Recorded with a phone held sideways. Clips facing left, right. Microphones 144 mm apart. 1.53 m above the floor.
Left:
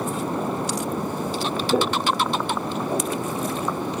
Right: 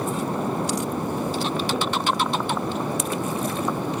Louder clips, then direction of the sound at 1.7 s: Left 3 dB; 35° left (ahead or behind).